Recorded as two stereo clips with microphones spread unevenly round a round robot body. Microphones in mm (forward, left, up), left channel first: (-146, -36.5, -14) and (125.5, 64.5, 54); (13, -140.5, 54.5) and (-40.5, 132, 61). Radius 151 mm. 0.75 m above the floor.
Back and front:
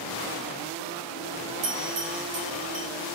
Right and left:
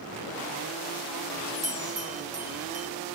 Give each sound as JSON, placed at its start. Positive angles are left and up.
{"t": 1.6, "sound": "a bell", "azimuth_deg": 35, "distance_m": 2.0}